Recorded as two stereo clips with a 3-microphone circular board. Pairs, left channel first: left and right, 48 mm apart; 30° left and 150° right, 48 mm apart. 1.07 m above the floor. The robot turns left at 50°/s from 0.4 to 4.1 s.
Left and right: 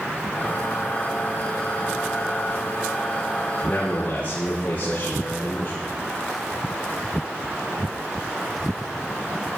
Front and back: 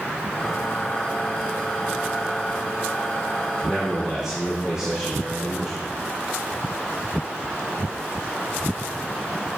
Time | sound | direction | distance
3.6 | a man speaking | 155° left | 3 m